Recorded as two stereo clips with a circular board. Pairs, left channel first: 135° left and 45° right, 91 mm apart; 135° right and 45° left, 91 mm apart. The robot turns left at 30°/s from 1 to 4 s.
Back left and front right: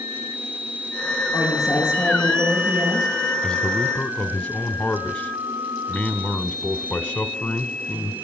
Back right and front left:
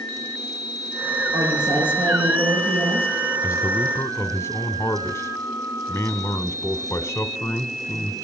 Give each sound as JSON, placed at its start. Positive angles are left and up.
{"t": 1.3, "sound": "a woman speaking", "azimuth_deg": 90, "distance_m": 9.5}
{"t": 3.4, "sound": "a man speaking", "azimuth_deg": -140, "distance_m": 1.1}